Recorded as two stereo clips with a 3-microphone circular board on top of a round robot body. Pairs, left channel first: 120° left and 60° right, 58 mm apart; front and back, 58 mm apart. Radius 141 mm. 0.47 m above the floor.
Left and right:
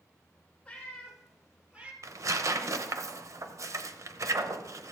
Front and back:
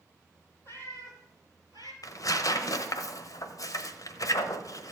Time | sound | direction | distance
0.7 | a cat meowing | 45° left | 3 m
2.0 | tearing paper | 25° right | 1.0 m